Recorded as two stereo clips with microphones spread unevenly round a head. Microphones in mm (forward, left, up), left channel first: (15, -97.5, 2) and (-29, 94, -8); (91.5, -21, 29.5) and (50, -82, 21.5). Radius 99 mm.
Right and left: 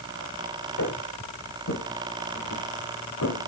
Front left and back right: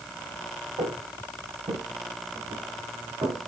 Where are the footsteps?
100° right, 7 m; by 3.5 s 85° right, 5 m.